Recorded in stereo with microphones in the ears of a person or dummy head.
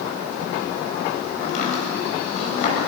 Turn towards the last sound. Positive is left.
turn(degrees=45)  # may be behind; listen again after turning